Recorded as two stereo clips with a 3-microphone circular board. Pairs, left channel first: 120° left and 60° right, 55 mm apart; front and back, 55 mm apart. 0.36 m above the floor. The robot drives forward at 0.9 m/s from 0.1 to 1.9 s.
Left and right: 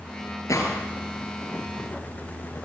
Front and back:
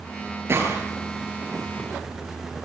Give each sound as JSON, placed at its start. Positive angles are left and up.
{"t": 0.5, "sound": "a gunshot", "azimuth_deg": 140, "distance_m": 5.5}